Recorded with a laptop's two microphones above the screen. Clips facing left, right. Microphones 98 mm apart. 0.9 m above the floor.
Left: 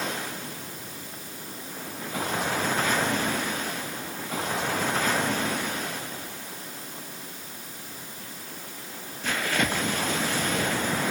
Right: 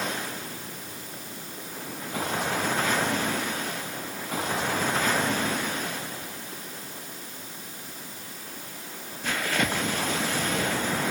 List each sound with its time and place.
Only background noise.